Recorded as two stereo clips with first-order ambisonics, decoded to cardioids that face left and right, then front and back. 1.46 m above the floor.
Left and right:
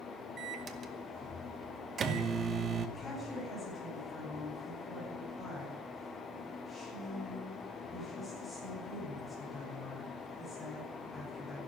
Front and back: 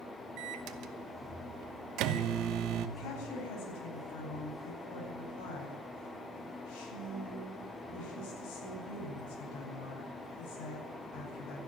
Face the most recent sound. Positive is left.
turn(degrees=5)